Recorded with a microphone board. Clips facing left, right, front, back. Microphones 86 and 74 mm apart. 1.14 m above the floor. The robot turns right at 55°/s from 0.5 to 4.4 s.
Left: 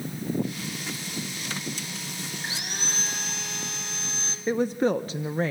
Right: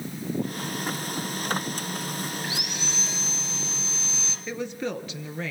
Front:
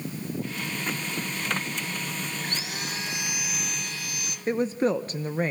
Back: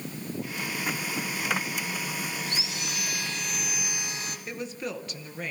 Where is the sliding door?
No sliding door in this recording.